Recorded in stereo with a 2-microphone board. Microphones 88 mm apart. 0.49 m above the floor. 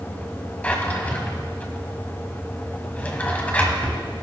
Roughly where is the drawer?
Centre.